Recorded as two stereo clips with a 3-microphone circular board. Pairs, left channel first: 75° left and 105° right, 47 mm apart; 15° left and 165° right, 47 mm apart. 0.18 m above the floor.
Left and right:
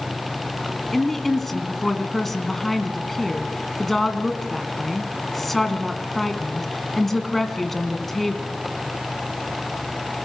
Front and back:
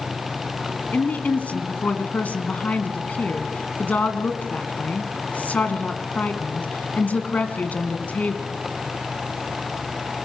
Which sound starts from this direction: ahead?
A woman speaking, at 0.9 s.